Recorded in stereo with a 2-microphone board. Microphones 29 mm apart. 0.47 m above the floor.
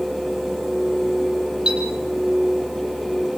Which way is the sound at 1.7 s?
30° right (ahead or behind).